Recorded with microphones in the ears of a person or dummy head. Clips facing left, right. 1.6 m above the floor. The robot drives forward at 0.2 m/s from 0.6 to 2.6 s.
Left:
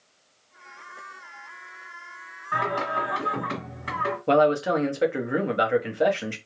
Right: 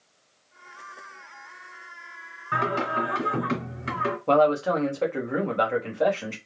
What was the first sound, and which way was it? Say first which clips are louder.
Singing: right 1 dB; 35° right (ahead or behind).